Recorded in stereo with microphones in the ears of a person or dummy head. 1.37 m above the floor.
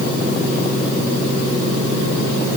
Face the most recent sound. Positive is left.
No sound to turn to.